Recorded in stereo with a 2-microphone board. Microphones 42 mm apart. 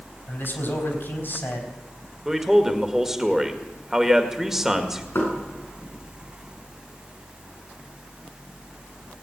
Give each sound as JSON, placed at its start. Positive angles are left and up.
{"t": 0.3, "sound": "a man speaking", "side_deg": 55, "distance_m": 4.0}
{"t": 2.2, "sound": "a man speaking", "side_deg": -5, "distance_m": 1.8}
{"t": 5.2, "sound": "knocking", "side_deg": 70, "distance_m": 6.5}